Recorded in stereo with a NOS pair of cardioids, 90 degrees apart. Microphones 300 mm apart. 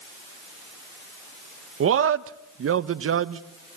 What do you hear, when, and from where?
1.8 s a man speaking: 45° right, 1.4 m